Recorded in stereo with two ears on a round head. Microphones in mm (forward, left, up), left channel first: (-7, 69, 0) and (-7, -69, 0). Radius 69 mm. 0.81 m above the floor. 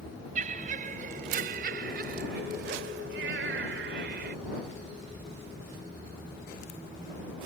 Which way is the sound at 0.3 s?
50° right (ahead or behind).